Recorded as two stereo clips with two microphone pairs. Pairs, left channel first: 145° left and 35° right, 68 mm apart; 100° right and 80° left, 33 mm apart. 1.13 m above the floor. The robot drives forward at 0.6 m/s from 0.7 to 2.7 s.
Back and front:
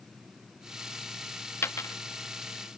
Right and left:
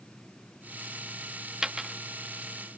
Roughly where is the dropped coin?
Behind left.